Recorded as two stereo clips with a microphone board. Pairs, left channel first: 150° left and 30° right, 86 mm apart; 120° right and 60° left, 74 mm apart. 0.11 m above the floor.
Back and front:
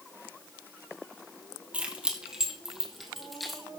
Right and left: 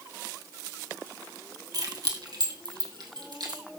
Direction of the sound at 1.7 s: 45° left.